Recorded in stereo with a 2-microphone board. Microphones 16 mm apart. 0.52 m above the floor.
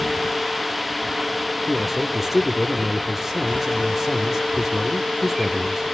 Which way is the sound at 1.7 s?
10° right (ahead or behind).